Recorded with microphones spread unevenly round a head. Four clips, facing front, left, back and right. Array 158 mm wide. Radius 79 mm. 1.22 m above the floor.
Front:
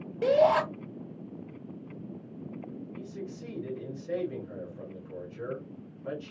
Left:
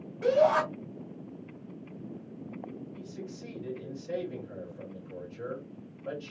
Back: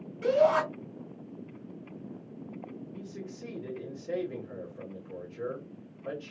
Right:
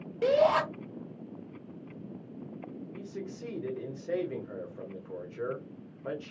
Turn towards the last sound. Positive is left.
turn(degrees=-115)